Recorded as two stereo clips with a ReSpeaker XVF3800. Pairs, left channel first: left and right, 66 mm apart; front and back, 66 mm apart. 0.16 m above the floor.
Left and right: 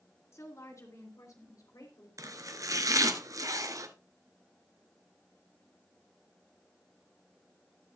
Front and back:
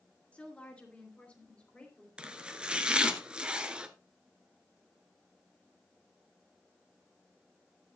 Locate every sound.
0.3 s a woman speaking: 65° left, 2.5 m; by 2.1 s 75° left, 3.5 m
2.2 s chopping: 105° right, 1.0 m